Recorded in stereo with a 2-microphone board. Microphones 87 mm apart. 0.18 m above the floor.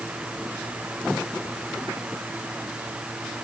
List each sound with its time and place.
Only background noise.